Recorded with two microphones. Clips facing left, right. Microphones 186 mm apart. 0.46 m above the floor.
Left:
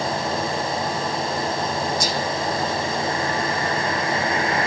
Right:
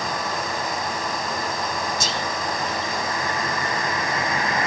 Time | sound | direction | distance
2.0 | whispering | 25° right (ahead or behind) | 1.0 m